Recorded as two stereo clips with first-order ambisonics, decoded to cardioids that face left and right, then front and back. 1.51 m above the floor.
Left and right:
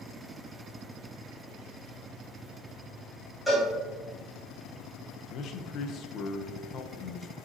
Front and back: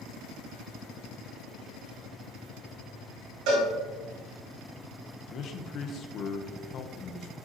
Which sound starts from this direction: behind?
A cowbell, at 3.5 s.